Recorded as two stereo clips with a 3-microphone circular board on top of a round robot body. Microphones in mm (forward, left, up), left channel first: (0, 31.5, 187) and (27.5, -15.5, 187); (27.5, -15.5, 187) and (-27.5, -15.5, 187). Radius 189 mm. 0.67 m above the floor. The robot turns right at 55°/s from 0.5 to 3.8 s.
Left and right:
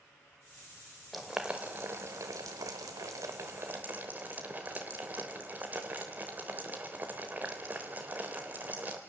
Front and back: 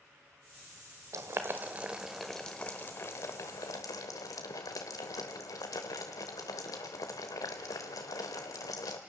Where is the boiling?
150° right, 0.6 m; by 9.0 s 5° right, 0.6 m.